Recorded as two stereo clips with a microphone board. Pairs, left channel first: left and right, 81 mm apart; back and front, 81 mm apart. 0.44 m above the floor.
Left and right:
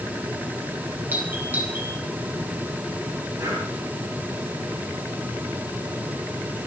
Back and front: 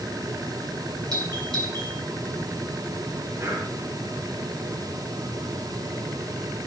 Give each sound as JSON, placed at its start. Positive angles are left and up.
{"t": 1.1, "sound": "a doorbell", "azimuth_deg": -25, "distance_m": 5.5}
{"t": 3.4, "sound": "breathing", "azimuth_deg": -50, "distance_m": 6.5}